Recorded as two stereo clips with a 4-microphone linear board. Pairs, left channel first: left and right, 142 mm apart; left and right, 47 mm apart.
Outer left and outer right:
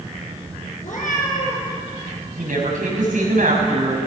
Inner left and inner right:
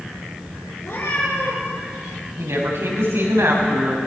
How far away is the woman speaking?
About 7 m.